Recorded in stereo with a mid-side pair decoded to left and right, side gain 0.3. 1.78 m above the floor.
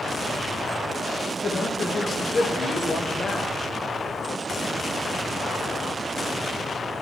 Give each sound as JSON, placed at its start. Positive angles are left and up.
{"t": 1.4, "sound": "a man speaking", "azimuth_deg": 45, "distance_m": 2.0}